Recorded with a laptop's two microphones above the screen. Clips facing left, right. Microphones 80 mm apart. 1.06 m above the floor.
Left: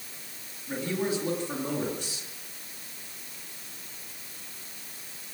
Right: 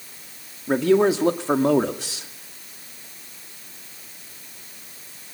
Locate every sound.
0.7 s a man speaking: 80° right, 2 m